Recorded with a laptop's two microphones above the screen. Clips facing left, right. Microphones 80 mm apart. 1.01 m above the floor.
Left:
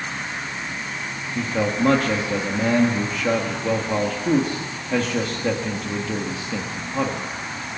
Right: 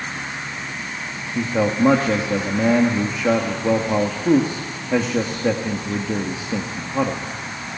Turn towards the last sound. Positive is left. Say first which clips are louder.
# right 3 dB
turn(degrees=-15)  # may be behind; listen again after turning